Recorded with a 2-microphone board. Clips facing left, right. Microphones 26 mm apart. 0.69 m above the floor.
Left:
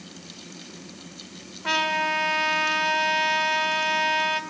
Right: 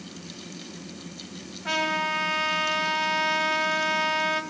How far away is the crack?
I don't hear a crack.